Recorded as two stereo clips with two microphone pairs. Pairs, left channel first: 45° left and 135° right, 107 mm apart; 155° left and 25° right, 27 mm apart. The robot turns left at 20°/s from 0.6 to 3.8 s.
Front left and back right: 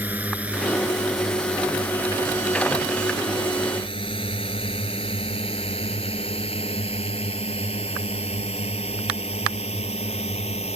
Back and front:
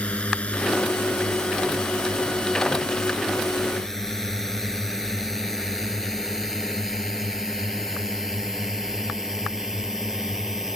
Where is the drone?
155° left; by 10.8 s 55° left.